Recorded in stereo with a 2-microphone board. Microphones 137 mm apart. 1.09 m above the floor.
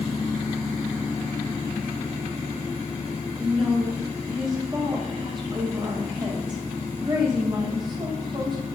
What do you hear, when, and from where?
3.4 s a woman speaking: 35° right (ahead or behind), 6.5 m